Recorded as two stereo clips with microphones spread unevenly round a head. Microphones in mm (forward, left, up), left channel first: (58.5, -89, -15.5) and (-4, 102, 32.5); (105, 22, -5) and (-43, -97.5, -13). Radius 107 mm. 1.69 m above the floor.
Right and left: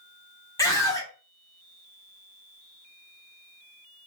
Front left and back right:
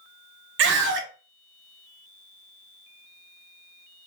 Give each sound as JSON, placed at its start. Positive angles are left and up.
{"t": 0.6, "sound": "a scream", "azimuth_deg": -155, "distance_m": 0.7}